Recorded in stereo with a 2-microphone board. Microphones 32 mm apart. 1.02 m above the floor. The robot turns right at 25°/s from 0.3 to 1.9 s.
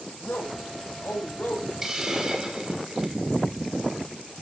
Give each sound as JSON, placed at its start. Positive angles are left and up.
{"t": 0.2, "sound": "a man speaking", "azimuth_deg": 85, "distance_m": 6.5}
{"t": 1.8, "sound": "a hiss", "side_deg": -15, "distance_m": 2.5}